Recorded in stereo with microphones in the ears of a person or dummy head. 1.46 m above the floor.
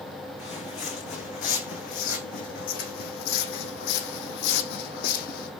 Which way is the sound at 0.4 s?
45° left (ahead or behind).